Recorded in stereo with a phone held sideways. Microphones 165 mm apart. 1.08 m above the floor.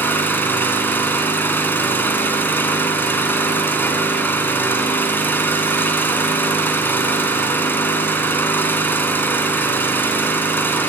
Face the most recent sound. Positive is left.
turn(degrees=10)  # may be behind; listen again after turning